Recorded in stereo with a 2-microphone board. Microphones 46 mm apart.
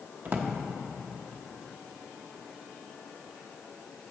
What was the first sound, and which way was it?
A drawer, 40° right (ahead or behind).